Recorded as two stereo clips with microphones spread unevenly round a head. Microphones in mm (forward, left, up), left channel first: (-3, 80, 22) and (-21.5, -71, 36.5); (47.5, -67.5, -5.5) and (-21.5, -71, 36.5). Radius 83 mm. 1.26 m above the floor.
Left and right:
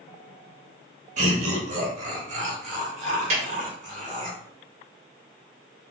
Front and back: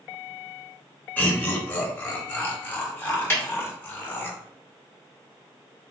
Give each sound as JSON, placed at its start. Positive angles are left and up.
{"t": 1.2, "sound": "laughter", "azimuth_deg": -50, "distance_m": 1.8}
{"t": 3.3, "sound": "a snare drum", "azimuth_deg": -50, "distance_m": 2.0}